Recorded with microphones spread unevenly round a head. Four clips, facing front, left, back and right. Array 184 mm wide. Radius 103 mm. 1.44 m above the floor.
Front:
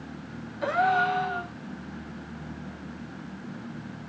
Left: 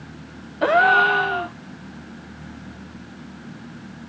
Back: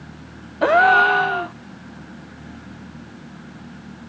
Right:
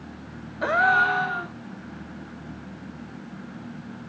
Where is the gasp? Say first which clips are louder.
Left 5 dB, back 10 dB; 145° left, 0.7 m.